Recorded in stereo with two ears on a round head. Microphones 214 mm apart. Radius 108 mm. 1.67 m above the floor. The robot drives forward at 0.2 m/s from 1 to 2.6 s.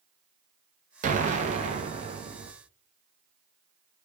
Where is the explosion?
30° right (ahead or behind), 0.6 m; by 2.5 s 20° right (ahead or behind), 0.8 m.